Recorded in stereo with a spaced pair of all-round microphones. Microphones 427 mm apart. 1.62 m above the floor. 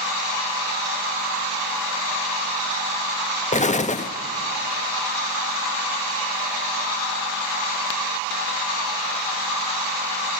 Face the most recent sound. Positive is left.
turn(degrees=20)  # may be behind; listen again after turning